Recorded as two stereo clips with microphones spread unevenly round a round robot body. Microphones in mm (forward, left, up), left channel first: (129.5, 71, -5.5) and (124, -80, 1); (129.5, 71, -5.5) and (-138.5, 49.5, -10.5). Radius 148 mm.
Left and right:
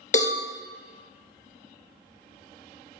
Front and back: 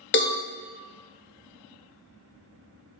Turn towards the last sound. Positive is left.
turn(degrees=50)